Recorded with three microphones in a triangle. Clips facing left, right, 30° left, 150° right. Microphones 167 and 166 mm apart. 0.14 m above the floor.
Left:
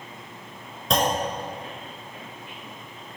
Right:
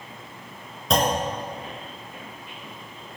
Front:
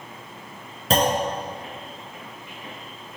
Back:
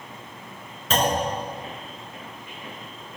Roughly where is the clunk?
Ahead.